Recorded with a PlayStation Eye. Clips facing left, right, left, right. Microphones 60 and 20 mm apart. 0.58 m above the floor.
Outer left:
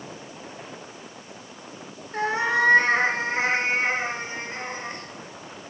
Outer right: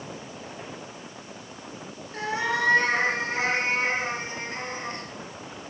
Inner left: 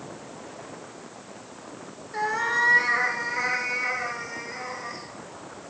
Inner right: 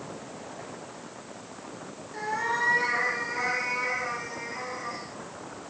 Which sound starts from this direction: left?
A cat meowing, at 2.1 s.